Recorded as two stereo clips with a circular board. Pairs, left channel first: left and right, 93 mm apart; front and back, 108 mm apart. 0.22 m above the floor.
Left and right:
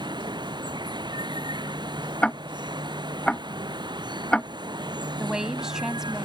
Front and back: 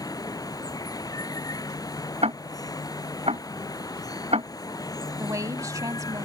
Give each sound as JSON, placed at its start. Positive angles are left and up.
{"t": 0.0, "sound": "running water", "azimuth_deg": -55}
{"t": 2.2, "sound": "ticking", "azimuth_deg": 170}
{"t": 5.2, "sound": "a woman speaking", "azimuth_deg": -170}